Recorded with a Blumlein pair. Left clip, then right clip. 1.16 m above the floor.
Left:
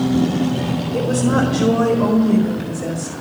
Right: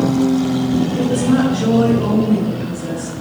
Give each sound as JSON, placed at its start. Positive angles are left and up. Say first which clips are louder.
{"t": 0.9, "sound": "a woman speaking", "louder": "left 2 dB", "azimuth_deg": 60, "distance_m": 4.0}